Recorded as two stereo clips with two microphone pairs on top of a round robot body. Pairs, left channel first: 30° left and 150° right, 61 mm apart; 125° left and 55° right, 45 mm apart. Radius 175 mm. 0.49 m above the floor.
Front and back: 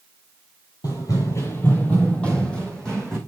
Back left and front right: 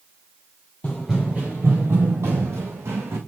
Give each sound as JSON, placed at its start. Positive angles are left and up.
{"t": 0.8, "sound": "running footsteps", "azimuth_deg": 60, "distance_m": 0.5}